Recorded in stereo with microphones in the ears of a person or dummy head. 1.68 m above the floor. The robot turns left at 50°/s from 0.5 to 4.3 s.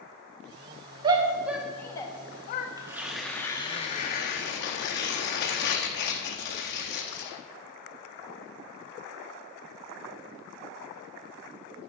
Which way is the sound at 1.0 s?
30° right (ahead or behind).